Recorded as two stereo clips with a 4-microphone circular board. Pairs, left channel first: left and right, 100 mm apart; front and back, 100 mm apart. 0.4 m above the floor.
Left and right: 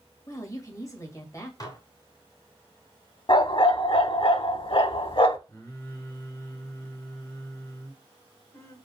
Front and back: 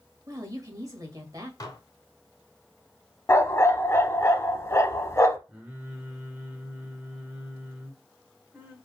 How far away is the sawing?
I don't hear sawing.